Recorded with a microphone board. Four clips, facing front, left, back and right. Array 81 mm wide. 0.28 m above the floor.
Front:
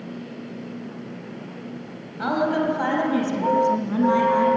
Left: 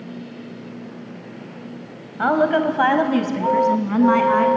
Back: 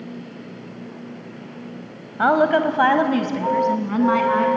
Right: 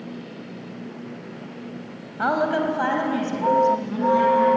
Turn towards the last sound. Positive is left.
turn(degrees=115)